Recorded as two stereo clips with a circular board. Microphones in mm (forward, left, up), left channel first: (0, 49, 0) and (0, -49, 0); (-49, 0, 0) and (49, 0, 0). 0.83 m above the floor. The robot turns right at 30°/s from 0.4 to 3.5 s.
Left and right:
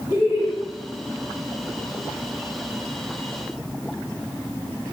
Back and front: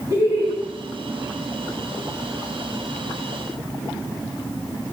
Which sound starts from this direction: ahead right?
Laughter, at 0.1 s.